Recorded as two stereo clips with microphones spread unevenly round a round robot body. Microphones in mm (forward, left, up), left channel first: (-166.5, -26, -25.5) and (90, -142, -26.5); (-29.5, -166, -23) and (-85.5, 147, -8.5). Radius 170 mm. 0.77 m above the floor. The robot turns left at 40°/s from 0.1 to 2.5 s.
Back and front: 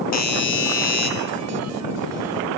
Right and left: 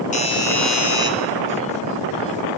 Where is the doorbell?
145° right, 3 m; by 1.1 s 175° left, 3 m.